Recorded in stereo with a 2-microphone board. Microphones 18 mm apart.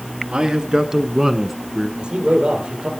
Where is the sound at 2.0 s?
75° right (ahead or behind), 5 m.